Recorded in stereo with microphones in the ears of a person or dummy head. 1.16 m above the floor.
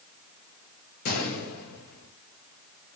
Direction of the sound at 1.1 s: 50° left (ahead or behind).